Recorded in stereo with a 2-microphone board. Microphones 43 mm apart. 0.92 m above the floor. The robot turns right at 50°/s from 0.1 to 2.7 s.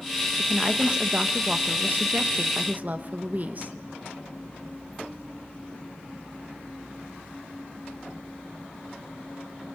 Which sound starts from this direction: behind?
A woman speaking, at 0.4 s.